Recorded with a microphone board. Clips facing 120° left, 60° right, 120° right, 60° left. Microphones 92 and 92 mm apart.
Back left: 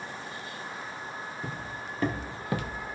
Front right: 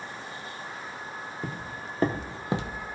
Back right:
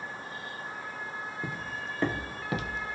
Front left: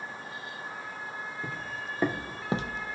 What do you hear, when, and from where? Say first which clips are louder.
1.4 s footsteps: front right 1 dB, even; 55° right, 0.5 m; by 3.0 s 10° left, 0.9 m